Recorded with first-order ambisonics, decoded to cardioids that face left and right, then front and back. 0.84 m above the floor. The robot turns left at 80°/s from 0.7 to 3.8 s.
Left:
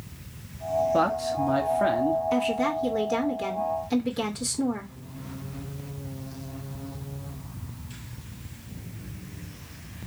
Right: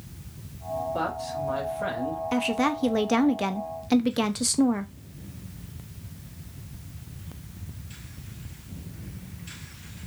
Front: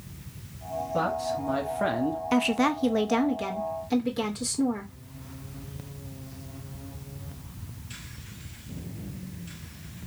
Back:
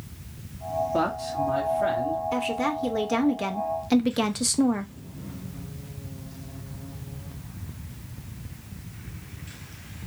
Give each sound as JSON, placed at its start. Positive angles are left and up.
{"t": 0.9, "sound": "a man speaking", "azimuth_deg": 120, "distance_m": 1.2}
{"t": 2.3, "sound": "a woman speaking", "azimuth_deg": -15, "distance_m": 0.5}